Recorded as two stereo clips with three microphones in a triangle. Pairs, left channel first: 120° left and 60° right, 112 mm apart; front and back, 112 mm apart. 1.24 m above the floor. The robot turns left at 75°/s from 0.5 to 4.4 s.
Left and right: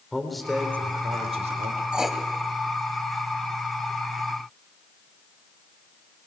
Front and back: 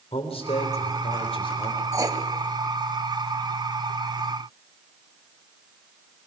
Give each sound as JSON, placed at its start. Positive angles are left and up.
{"t": 0.1, "sound": "a man speaking", "azimuth_deg": 30, "distance_m": 3.5}
{"t": 1.9, "sound": "writing", "azimuth_deg": -135, "distance_m": 1.3}